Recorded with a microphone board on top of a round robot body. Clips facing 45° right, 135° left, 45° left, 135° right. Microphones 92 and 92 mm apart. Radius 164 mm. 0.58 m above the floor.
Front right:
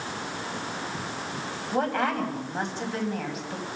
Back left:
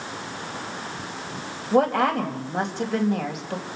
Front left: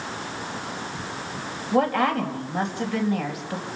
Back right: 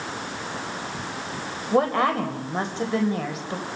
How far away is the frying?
No frying in this recording.